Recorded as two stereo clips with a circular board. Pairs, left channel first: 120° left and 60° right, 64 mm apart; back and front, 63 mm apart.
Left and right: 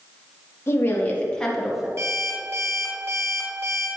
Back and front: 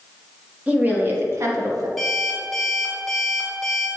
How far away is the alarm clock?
About 2.5 m.